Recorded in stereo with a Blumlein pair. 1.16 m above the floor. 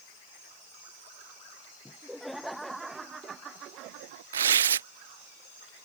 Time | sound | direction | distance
1.9 | laughter | 5° left | ?
4.3 | tearing paper | 65° right | ?